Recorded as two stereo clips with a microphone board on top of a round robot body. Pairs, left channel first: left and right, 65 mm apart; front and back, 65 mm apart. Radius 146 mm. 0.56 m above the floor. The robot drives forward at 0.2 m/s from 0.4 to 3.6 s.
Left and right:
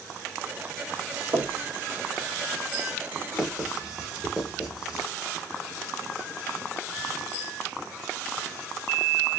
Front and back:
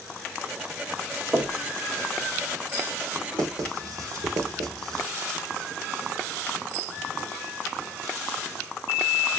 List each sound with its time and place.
1.3 s knocking: 125° right, 1.3 m
3.3 s writing: 170° right, 1.3 m